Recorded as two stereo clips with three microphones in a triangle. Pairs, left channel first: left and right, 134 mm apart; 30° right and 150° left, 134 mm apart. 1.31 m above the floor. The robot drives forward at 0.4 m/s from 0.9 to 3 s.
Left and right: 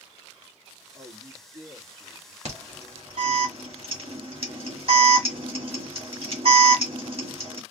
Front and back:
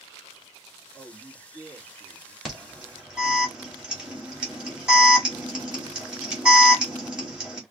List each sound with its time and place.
0.9 s a man speaking: 115° right, 2.5 m; by 2.4 s 125° right, 2.5 m
2.5 s an alarm: 120° right, 2.5 m; by 7.6 s 125° right, 3 m